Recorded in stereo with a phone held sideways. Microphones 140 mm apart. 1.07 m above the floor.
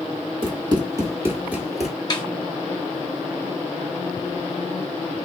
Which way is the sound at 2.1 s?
35° left (ahead or behind).